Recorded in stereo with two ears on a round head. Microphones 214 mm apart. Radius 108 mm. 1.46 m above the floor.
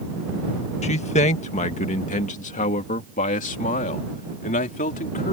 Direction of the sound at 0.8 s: 30° left (ahead or behind).